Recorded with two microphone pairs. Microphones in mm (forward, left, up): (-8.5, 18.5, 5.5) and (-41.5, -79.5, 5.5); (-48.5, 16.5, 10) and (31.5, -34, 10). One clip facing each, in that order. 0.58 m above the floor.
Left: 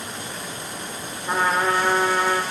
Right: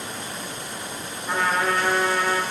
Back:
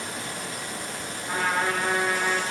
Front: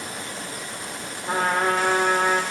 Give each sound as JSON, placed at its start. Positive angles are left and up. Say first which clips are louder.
{"t": 1.2, "sound": "a trumpet", "louder": "left 2 dB, front 4 dB", "azimuth_deg": 5, "distance_m": 1.1}